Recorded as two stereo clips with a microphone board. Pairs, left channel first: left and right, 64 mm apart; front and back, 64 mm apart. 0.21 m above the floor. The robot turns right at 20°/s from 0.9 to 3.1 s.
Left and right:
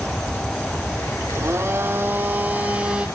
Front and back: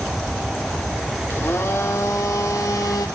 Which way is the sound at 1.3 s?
50° right.